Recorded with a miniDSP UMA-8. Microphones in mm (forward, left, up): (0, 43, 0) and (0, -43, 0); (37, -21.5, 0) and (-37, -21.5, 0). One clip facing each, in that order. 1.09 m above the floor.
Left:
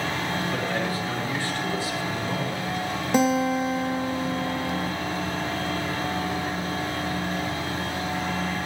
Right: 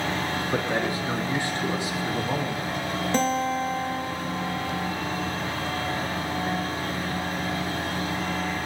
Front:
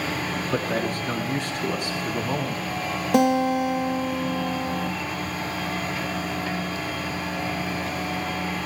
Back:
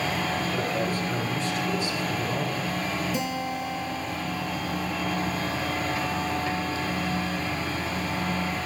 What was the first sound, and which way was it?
A man speaking, 20° right.